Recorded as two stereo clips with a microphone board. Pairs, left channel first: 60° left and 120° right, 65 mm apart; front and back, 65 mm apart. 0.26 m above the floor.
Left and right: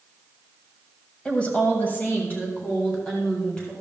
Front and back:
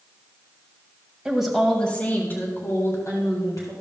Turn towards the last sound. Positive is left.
turn(degrees=0)